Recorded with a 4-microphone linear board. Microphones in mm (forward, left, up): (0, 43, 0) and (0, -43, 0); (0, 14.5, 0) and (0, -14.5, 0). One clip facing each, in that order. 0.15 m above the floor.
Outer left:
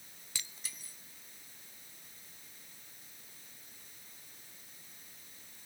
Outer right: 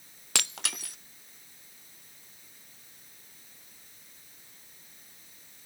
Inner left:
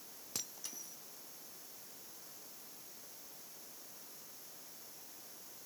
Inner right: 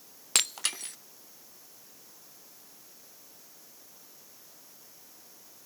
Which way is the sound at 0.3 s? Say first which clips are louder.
Outer right 14 dB, inner right 17 dB; 70° right (ahead or behind).